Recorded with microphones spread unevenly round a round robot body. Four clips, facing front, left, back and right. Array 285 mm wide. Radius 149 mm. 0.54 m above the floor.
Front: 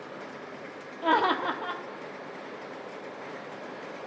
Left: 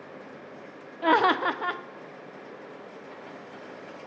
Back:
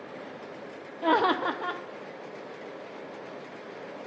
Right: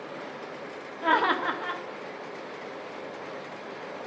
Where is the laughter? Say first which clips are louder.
Left 3 dB, back 1 dB; 140° left, 0.9 m.